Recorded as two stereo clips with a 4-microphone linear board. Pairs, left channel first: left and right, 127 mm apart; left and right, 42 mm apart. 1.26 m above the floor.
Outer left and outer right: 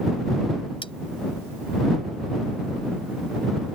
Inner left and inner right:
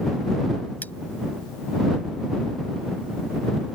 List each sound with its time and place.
0.8 s cutlery clinking: 45° left (ahead or behind)